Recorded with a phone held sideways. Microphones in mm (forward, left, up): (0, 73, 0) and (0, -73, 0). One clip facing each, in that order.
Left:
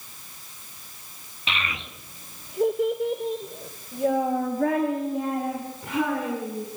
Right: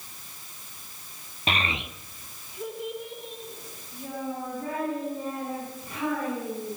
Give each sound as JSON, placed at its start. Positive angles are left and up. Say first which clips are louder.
{"t": 1.5, "sound": "a child speaking", "louder": "right 3 dB", "side_deg": -45, "distance_m": 1.0}